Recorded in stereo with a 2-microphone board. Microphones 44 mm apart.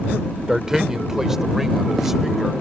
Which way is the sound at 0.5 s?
15° right (ahead or behind).